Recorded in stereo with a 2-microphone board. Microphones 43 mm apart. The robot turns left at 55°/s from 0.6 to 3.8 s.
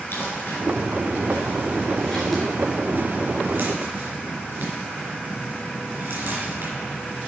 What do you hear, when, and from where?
0.1 s crumpling: 65° left (ahead or behind), 3.5 m; by 6.7 s 60° right (ahead or behind), 3.5 m